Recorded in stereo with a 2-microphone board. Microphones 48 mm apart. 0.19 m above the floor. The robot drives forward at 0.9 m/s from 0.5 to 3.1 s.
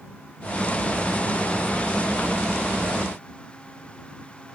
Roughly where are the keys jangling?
No keys jangling in this recording.